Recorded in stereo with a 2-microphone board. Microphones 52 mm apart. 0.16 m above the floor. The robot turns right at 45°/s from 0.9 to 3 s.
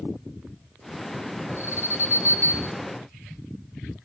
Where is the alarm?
100° left, 4 m; by 2.7 s 150° left, 4 m.